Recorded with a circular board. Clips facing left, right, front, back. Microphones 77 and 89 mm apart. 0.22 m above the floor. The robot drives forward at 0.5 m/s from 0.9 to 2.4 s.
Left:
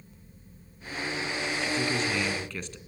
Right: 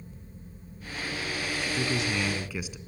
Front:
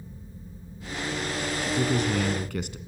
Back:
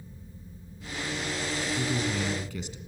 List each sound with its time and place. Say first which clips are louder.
1.6 s a man speaking: left 1 dB, front 6 dB; 10° right, 2.5 m